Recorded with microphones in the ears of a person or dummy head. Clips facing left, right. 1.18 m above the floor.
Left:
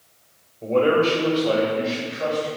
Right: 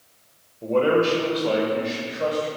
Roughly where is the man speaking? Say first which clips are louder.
Left 1 dB; centre.